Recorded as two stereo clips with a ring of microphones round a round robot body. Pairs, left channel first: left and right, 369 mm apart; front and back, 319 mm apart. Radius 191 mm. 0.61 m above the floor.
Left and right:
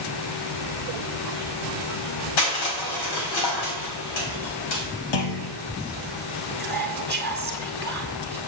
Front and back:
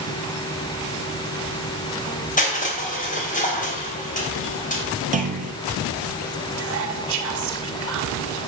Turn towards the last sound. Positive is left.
turn(degrees=175)